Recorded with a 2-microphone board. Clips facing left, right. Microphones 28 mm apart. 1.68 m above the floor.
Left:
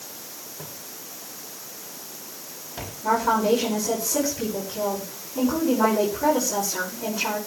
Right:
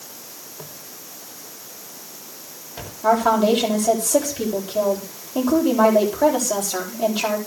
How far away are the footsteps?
About 3.5 m.